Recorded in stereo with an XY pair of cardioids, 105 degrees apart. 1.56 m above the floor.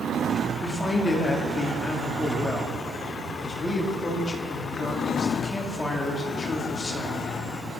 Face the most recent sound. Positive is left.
turn(degrees=25)